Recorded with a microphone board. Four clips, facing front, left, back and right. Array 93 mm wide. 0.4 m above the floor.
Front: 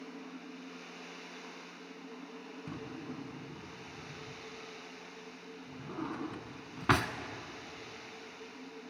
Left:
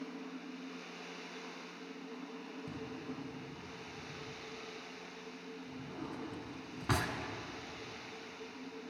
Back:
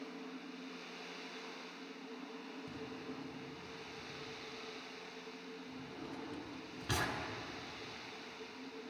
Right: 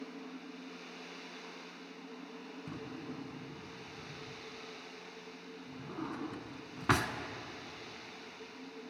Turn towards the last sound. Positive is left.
turn(degrees=-15)